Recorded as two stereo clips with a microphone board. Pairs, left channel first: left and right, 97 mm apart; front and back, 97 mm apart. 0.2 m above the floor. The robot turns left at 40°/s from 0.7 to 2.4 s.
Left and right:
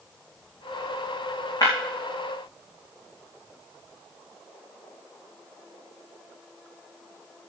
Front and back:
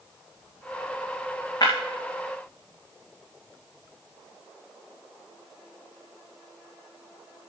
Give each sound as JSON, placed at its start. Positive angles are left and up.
{"t": 1.6, "sound": "breaking glass", "azimuth_deg": 45, "distance_m": 5.5}